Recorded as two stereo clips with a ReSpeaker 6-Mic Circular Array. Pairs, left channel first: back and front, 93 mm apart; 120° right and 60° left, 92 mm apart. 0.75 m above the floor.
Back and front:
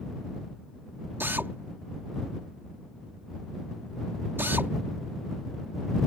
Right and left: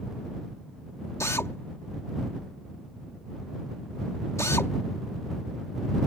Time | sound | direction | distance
1.2 | a drill | 65° right | ?